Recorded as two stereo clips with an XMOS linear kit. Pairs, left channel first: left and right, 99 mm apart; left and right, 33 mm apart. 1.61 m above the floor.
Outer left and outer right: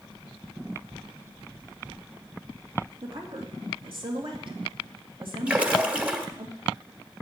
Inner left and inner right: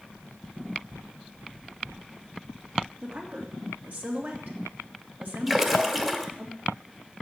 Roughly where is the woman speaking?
Right.